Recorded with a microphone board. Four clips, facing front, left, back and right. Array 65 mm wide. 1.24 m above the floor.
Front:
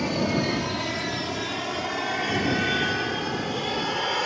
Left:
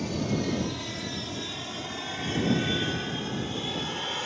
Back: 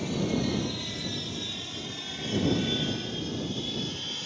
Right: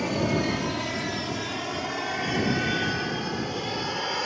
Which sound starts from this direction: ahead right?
An aircraft, at 0.0 s.